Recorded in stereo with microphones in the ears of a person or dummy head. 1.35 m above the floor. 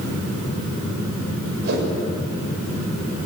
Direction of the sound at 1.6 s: 55° right (ahead or behind).